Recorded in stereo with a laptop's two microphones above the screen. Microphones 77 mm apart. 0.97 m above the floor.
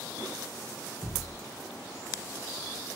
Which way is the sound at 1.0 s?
70° right (ahead or behind).